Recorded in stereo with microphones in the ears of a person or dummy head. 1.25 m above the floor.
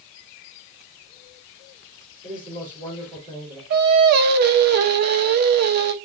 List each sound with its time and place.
2.2 s a man speaking: 25° right (ahead or behind), 4 m
3.7 s singing: 55° right (ahead or behind), 0.8 m